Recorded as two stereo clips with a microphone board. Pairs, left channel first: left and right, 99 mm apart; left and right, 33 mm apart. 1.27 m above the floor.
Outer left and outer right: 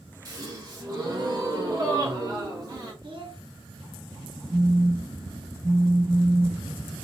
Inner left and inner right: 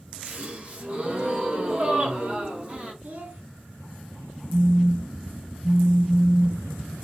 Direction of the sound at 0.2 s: 40° right (ahead or behind).